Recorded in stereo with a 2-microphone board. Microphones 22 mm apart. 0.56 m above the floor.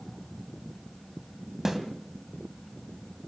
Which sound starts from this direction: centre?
A snare drum, at 1.6 s.